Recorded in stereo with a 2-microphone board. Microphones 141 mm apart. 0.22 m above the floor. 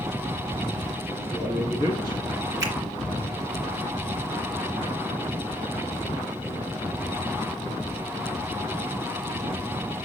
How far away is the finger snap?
About 3 m.